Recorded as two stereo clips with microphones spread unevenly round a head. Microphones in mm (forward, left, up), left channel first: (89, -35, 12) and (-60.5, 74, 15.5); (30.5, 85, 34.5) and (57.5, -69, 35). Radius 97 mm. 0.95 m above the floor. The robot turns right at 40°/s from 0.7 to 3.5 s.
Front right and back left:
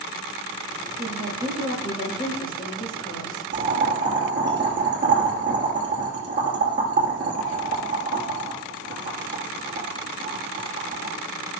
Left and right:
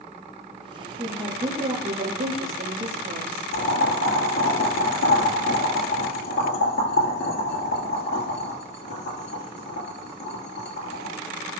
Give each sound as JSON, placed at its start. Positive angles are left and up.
{"t": 1.0, "sound": "a woman speaking", "azimuth_deg": -170, "distance_m": 2.5}
{"t": 3.5, "sound": "boiling", "azimuth_deg": 120, "distance_m": 3.5}